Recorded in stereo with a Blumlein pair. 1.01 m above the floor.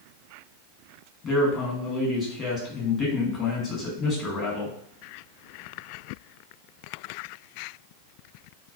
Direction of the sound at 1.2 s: 25° left.